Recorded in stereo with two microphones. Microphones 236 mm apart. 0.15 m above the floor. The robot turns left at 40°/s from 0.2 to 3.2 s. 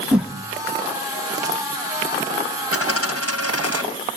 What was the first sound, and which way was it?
A whoosh, 5° right (ahead or behind).